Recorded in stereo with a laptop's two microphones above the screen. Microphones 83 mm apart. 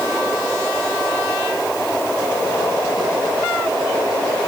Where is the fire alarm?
No fire alarm in this recording.